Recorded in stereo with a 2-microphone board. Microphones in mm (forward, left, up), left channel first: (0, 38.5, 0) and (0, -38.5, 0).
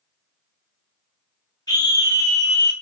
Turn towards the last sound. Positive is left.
turn(degrees=55)  # may be behind; listen again after turning